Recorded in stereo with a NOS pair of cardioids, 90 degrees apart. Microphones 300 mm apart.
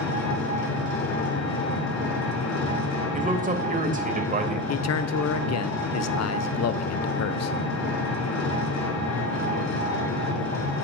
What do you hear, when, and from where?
0.0 s an engine running: 60° left, 3 m
3.1 s a man speaking: 25° right, 2.5 m
4.7 s a man speaking: 55° left, 1.1 m